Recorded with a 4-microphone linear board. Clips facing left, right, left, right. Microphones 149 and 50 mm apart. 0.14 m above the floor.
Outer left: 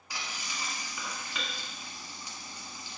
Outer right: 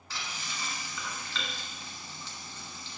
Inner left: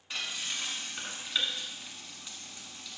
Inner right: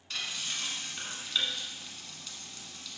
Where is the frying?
15° left (ahead or behind), 1.4 m.